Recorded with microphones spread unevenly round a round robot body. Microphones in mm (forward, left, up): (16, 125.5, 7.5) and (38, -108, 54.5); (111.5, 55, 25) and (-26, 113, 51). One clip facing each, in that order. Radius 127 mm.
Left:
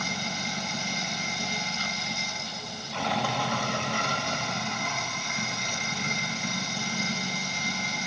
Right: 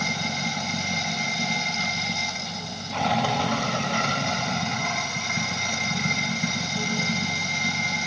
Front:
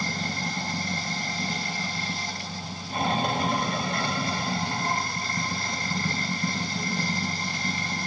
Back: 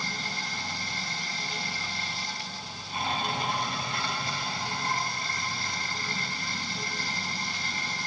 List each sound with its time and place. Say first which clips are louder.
0.0 s running water: right 4 dB, front 6 dB; 60° right, 2.5 m